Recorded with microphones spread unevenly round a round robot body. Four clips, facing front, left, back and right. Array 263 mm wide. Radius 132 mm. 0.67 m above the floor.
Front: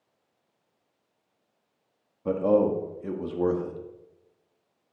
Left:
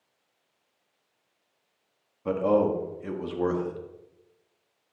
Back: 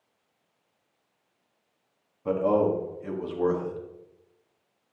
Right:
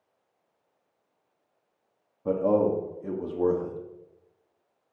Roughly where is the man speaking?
Ahead.